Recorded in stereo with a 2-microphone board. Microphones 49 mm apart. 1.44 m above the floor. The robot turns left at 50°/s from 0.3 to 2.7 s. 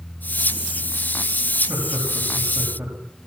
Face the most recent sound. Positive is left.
turn(degrees=-75)  # may be behind; listen again after turning